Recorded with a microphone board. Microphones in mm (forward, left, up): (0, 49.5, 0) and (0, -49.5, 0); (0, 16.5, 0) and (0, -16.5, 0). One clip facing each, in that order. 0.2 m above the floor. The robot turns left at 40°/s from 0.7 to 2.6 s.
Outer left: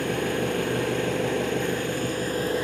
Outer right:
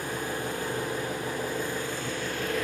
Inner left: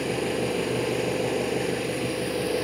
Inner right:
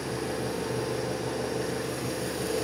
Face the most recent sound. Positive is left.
turn(degrees=35)